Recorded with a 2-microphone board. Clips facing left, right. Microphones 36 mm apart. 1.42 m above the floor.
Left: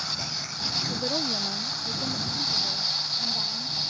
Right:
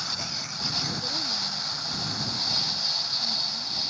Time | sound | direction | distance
0.9 | a woman speaking | 35° left (ahead or behind) | ?